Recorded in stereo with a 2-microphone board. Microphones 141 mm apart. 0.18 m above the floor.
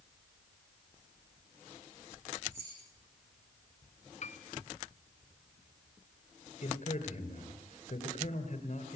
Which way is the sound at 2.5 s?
20° right (ahead or behind).